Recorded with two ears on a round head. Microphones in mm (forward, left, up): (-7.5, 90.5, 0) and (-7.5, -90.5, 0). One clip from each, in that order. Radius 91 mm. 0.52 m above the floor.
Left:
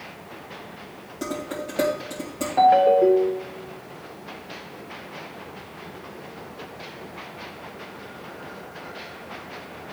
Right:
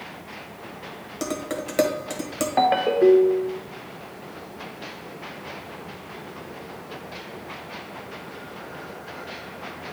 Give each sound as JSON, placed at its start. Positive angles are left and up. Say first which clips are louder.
{"t": 1.2, "sound": "dishes clattering", "louder": "right 1 dB", "side_deg": -50, "distance_m": 1.6}
{"t": 2.6, "sound": "a ringtone", "louder": "left 4 dB", "side_deg": -30, "distance_m": 0.6}